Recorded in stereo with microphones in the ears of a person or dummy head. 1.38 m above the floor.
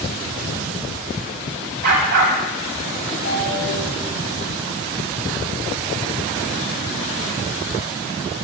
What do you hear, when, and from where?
1.8 s a dog barking: 50° right (ahead or behind), 2 m
3.2 s a ringtone: 55° left (ahead or behind), 2 m